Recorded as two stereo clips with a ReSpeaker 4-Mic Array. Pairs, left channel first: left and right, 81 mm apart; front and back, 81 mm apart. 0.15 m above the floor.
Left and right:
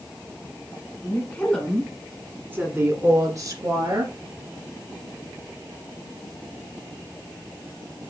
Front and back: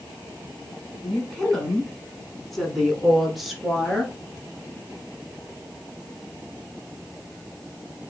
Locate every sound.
1.0 s a woman speaking: 75° left, 1.3 m; by 4.1 s 95° right, 2 m